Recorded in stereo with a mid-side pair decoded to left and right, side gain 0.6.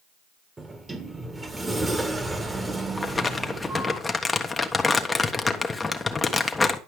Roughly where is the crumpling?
Ahead.